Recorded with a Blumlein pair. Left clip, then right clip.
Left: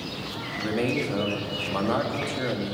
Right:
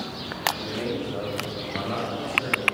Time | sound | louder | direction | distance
0.6 | a man speaking | left 3 dB | 35° left | 2.5 m